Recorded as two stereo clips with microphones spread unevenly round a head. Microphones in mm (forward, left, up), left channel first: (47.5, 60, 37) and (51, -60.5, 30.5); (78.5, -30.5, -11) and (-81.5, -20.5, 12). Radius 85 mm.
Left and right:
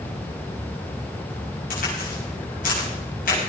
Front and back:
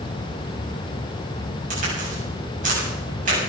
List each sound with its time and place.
1.7 s a crack: 130° left, 7.5 m